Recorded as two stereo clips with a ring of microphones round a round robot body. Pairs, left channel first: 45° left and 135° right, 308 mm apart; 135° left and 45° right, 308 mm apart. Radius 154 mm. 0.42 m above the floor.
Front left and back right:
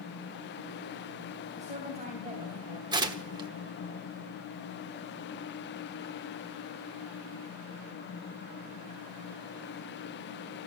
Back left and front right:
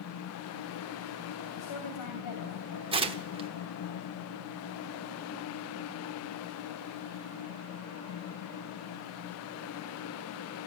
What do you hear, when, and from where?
1.6 s a woman speaking: 160° left, 3 m
2.9 s tearing paper: 85° right, 1.0 m